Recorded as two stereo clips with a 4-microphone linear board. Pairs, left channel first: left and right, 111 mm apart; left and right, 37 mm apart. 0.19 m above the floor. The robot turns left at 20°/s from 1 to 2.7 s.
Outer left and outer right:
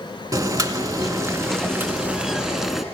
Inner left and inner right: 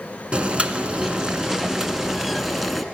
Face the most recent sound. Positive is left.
turn(degrees=-175)